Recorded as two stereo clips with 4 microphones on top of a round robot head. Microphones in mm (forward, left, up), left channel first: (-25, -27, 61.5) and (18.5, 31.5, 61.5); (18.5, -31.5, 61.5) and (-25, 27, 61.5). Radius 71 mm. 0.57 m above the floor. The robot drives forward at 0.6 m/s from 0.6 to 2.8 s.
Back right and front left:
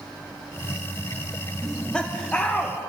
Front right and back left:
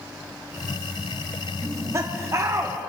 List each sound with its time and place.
1.6 s laughter: 150° left, 0.7 m; by 2.8 s 170° left, 1.2 m